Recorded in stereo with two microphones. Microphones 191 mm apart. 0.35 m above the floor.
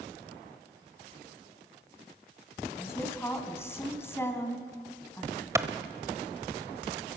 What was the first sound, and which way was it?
A woman speaking, 15° left (ahead or behind).